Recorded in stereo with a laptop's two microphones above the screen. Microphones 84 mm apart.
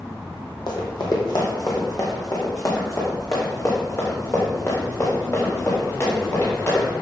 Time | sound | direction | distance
0.7 | running footsteps | 60° left (ahead or behind) | 2 m